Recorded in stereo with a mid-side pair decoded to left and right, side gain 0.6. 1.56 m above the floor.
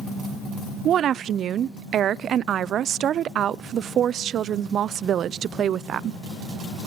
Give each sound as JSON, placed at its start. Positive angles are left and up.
{"t": 0.8, "sound": "a woman speaking", "azimuth_deg": -50, "distance_m": 0.5}